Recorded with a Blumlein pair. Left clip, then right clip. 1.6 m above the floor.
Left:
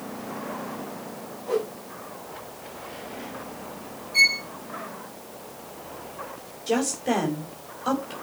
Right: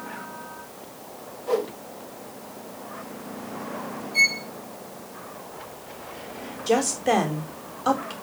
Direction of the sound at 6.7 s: 15° right.